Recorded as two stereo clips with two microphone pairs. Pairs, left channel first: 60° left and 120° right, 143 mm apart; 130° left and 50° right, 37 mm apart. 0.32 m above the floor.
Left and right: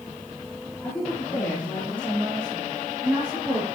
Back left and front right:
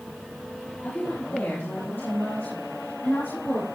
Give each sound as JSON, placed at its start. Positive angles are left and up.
{"t": 0.8, "sound": "a woman speaking", "azimuth_deg": 145, "distance_m": 5.5}